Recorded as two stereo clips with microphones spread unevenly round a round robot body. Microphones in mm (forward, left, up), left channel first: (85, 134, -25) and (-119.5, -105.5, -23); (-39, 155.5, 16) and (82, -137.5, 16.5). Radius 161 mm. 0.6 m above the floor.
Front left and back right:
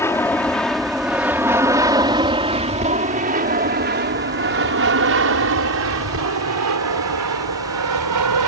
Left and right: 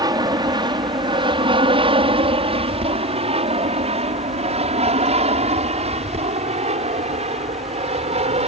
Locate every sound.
0.0 s an aircraft: 15° right; by 8.5 s 135° right